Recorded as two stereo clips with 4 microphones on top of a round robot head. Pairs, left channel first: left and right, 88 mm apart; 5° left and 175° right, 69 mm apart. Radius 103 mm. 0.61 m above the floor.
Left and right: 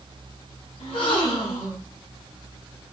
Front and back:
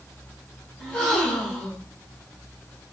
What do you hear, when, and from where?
0.8 s a gasp: 80° left, 3 m